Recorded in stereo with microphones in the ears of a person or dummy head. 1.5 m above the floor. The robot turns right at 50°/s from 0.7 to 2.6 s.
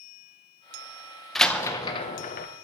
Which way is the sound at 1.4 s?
Straight ahead.